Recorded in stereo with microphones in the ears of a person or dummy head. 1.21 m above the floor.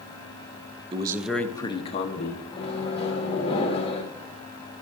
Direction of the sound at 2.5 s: 35° left (ahead or behind).